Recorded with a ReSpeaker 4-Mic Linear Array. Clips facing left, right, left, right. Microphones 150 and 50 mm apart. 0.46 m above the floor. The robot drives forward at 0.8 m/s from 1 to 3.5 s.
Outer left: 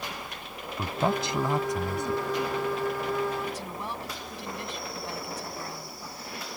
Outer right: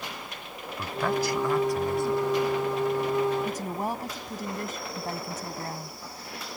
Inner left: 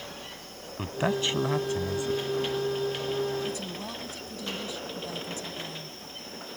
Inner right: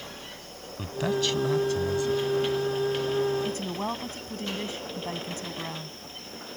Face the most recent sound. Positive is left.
turn(degrees=-50)  # may be behind; listen again after turning